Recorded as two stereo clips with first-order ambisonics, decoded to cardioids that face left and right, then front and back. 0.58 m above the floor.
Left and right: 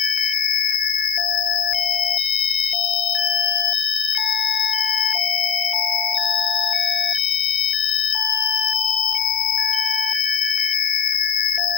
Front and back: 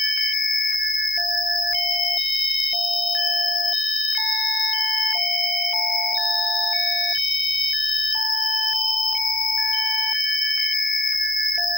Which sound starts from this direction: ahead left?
An insect, at 0.0 s.